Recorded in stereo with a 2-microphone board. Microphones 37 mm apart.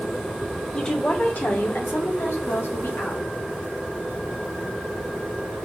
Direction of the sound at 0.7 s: 20° left (ahead or behind).